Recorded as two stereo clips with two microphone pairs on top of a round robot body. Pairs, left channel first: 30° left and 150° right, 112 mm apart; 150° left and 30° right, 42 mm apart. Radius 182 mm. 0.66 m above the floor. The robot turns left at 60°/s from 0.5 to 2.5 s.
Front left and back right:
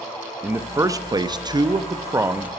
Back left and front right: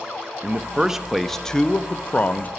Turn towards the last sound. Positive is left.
turn(degrees=145)